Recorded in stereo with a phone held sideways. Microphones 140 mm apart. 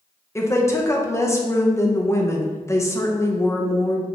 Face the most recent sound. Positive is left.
turn(degrees=20)  # may be behind; listen again after turning